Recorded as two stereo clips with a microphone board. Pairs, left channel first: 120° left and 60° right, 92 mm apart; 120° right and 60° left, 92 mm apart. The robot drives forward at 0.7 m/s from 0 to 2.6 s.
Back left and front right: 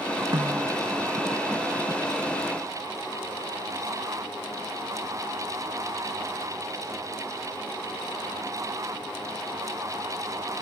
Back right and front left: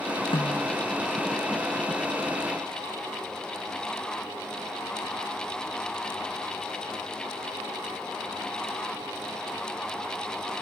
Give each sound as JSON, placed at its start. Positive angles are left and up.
{"t": 0.3, "sound": "a snare drum", "azimuth_deg": -105}